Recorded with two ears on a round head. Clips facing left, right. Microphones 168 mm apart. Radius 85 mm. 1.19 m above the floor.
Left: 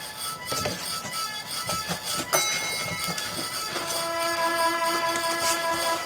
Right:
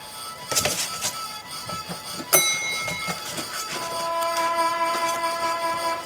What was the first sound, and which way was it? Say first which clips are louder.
A bell: right 4 dB; 30° right (ahead or behind).